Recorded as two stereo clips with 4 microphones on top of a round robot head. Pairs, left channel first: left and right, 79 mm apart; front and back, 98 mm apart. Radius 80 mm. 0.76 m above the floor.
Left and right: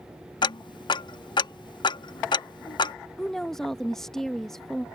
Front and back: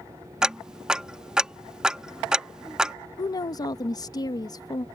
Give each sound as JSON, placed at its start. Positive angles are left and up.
{"t": 0.4, "sound": "ticking", "azimuth_deg": 95}
{"t": 3.2, "sound": "a woman speaking", "azimuth_deg": 5}